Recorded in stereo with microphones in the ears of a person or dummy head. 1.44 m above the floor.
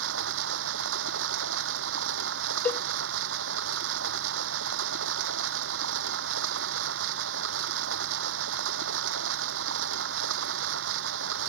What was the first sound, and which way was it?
Running water, 75° right (ahead or behind).